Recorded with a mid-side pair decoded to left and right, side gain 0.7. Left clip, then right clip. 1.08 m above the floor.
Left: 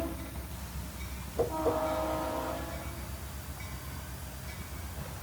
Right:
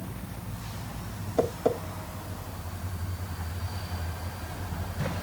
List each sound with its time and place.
1.4 s tapping: 60° right, 2.5 m